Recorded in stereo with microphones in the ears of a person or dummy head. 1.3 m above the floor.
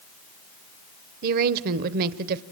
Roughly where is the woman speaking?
Right.